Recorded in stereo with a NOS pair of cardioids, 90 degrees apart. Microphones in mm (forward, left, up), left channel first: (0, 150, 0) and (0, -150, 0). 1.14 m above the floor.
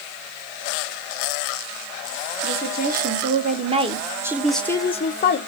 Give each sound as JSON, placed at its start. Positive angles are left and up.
{"t": 2.4, "sound": "a woman speaking", "azimuth_deg": -35, "distance_m": 1.5}